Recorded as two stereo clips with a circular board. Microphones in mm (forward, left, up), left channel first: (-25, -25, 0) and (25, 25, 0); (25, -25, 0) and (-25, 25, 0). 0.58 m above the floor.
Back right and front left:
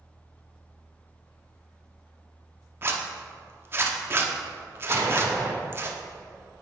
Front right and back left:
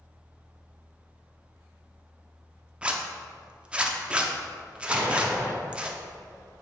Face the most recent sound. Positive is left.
turn(degrees=70)